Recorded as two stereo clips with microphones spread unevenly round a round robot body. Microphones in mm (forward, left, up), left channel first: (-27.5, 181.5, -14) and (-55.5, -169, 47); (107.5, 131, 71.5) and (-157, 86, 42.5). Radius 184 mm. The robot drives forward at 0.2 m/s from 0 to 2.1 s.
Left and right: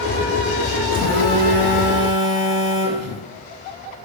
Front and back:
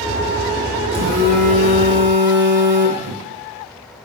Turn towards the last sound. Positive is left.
turn(degrees=140)